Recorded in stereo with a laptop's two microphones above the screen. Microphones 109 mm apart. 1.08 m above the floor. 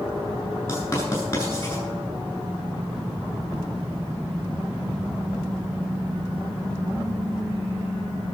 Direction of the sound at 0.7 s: 25° left (ahead or behind).